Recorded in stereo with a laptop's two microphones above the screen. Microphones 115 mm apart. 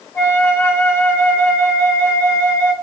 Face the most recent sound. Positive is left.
turn(degrees=20)  # may be behind; listen again after turning